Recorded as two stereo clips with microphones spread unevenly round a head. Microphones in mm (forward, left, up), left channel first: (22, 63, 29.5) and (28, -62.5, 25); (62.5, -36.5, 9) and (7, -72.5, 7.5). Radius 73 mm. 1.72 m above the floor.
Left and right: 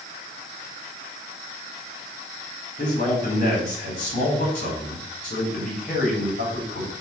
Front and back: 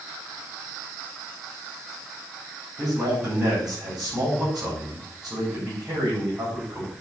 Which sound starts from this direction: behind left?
A man speaking, at 2.8 s.